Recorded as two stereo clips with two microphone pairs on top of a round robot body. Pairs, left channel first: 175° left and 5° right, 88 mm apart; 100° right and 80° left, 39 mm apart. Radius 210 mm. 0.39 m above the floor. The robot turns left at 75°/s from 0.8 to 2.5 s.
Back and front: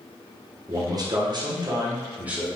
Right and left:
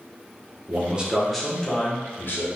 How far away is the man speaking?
About 1.8 m.